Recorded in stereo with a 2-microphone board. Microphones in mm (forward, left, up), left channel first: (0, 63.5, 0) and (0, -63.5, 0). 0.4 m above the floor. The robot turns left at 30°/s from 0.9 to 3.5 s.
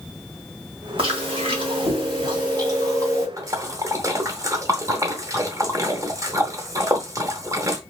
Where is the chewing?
80° right, 1.3 m; by 3.3 s 150° right, 1.3 m.